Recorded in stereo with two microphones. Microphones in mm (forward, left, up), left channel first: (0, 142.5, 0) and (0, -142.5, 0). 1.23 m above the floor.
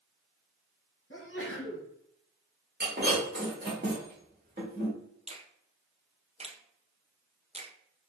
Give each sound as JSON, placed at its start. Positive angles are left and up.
{"t": 1.1, "sound": "a sneeze", "side_deg": 40, "distance_m": 1.0}
{"t": 2.8, "sound": "breaking glass", "side_deg": -35, "distance_m": 1.7}
{"t": 5.3, "sound": "a finger snap", "side_deg": -20, "distance_m": 0.6}